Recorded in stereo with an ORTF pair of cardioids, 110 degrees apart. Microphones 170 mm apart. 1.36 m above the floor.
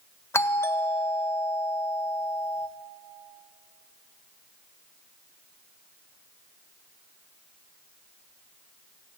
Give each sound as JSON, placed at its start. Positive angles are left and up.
{"t": 0.3, "sound": "a doorbell", "azimuth_deg": 15, "distance_m": 1.7}